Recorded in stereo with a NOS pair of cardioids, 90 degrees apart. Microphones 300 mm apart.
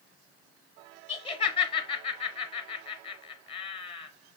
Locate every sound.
1.1 s laughter: 20° left, 0.8 m